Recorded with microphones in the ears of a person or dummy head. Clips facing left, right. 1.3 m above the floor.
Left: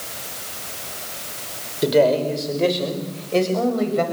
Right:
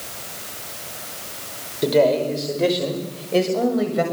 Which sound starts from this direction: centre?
A man speaking, at 1.8 s.